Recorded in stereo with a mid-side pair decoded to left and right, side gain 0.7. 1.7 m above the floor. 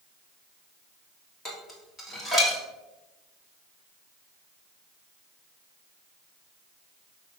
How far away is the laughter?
I don't hear laughter.